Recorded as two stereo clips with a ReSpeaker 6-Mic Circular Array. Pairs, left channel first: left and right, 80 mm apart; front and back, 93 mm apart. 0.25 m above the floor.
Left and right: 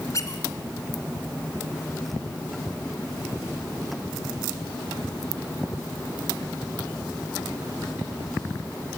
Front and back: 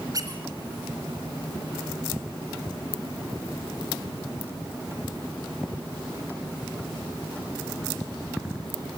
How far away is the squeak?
About 2 m.